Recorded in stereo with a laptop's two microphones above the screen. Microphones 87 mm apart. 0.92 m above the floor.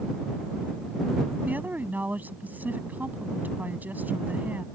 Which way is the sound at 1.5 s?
20° right (ahead or behind).